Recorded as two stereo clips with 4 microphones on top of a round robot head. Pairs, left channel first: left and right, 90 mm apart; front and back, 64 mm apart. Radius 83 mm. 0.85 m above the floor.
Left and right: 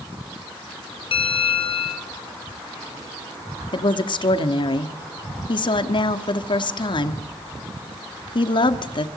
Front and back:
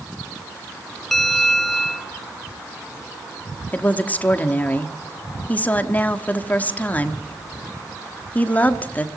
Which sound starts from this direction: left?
A bell, at 1.1 s.